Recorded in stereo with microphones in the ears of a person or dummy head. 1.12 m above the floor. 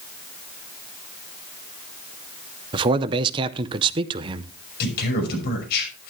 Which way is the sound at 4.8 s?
55° left (ahead or behind).